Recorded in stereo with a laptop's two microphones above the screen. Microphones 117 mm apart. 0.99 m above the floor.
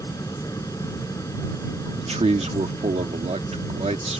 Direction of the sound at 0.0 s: 30° left (ahead or behind).